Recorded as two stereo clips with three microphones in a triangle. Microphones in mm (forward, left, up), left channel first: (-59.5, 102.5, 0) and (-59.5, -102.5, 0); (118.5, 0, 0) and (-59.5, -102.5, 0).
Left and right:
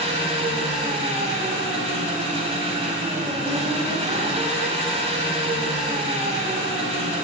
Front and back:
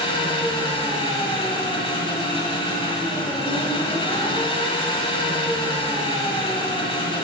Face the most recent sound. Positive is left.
turn(degrees=-35)